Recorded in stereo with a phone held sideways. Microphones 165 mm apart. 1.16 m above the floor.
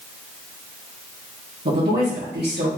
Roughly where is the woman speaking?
Right.